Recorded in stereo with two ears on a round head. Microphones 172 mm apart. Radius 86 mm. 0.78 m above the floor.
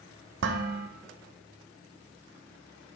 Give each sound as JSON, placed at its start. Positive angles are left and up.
{"t": 0.4, "sound": "dishes clattering", "side_deg": -65, "distance_m": 0.7}